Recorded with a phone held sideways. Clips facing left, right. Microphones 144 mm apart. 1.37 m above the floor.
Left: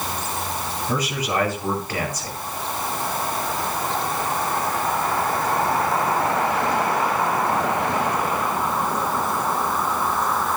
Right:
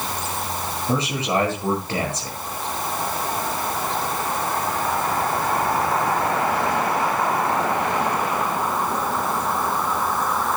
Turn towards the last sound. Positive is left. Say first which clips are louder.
# right 3 dB
turn(degrees=-25)  # may be behind; listen again after turning